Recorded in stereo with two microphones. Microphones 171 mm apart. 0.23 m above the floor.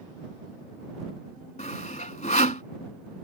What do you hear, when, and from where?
1.6 s sawing: 45° left (ahead or behind)